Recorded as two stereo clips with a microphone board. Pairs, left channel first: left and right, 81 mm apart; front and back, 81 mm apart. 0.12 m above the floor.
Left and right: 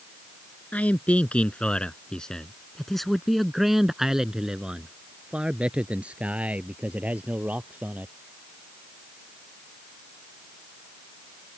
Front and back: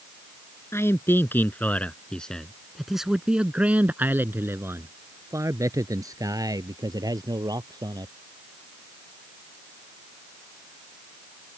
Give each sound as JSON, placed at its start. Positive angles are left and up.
{"t": 0.7, "sound": "a man speaking", "azimuth_deg": 30}